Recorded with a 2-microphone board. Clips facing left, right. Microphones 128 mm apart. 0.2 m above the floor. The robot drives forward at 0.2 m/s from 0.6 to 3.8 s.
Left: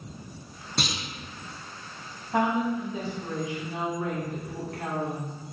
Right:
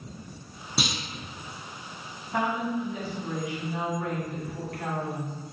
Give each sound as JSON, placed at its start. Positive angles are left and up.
{"t": 0.8, "sound": "a clunk", "side_deg": -5, "distance_m": 0.5}
{"t": 2.3, "sound": "a woman speaking", "side_deg": 35, "distance_m": 1.1}